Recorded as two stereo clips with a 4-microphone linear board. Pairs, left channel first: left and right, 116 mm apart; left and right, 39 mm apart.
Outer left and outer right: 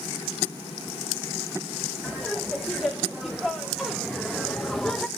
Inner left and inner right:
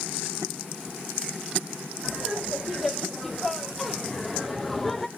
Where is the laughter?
5° right (ahead or behind), 2 m; by 5.1 s 5° left (ahead or behind), 0.7 m.